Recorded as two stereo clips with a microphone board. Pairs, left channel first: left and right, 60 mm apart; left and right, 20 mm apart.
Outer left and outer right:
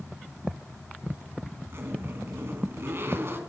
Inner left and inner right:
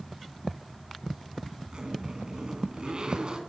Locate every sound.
1.7 s a zipper: 35° right (ahead or behind), 2.5 m